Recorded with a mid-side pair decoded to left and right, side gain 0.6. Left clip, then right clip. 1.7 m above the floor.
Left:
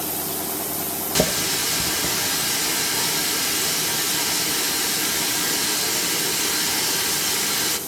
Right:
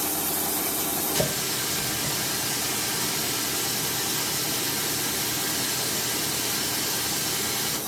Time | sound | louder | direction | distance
1.1 | a running tap | left 8 dB | 40° left | 3 m